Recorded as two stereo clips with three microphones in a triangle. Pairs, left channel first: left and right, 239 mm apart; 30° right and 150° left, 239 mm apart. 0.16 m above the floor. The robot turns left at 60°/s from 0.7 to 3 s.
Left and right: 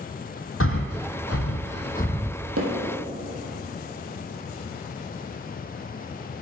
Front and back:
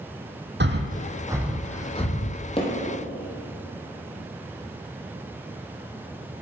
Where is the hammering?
95° right, 1.6 m; by 2.7 s 105° right, 1.6 m.